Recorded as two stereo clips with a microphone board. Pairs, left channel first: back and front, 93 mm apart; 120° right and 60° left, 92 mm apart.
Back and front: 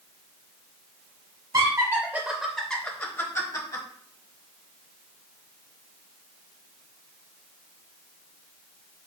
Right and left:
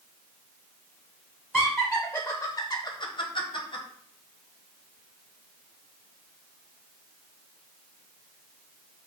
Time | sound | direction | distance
1.5 | laughter | 25° right | 0.8 m